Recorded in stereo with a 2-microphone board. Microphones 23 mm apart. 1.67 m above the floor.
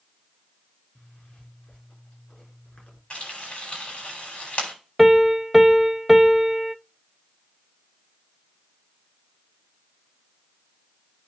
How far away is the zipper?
About 4.5 m.